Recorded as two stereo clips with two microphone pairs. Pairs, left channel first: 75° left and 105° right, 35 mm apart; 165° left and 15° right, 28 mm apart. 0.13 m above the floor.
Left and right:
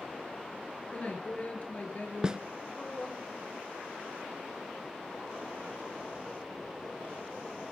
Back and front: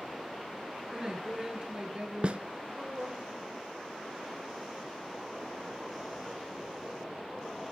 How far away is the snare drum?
About 0.7 m.